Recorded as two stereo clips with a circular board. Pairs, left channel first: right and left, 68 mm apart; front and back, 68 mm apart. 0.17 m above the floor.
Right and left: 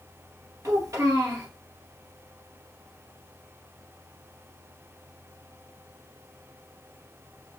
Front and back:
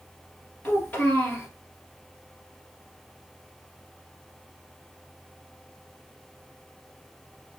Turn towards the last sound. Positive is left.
turn(degrees=65)